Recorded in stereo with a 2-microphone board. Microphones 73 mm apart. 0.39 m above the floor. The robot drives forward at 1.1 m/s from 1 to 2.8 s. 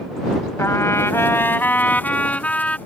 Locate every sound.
0.6 s a trumpet: 40° left (ahead or behind); by 2.8 s 15° left (ahead or behind)